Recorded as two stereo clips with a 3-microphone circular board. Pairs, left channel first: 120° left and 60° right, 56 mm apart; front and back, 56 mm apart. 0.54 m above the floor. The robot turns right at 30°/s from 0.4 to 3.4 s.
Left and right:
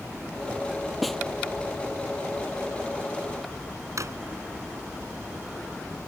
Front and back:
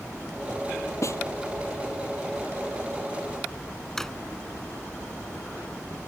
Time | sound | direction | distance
1.0 | a snare drum | 30° left | ?
4.0 | a drawer | 80° right | ?